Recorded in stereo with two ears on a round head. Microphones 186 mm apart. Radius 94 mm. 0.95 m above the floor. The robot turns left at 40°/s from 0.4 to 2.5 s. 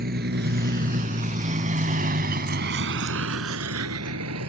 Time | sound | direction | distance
0.0 | a vehicle | 50° right (ahead or behind) | ?